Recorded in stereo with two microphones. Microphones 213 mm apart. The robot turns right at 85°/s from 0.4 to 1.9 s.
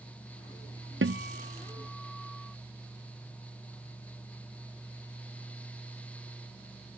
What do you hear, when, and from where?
1.0 s a guitar: 75° right; by 2.5 s straight ahead